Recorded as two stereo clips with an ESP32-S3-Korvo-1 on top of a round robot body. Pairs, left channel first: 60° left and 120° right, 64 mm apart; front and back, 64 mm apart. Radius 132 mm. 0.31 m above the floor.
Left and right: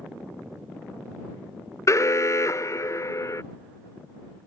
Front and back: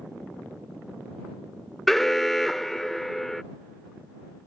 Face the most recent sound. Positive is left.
turn(degrees=85)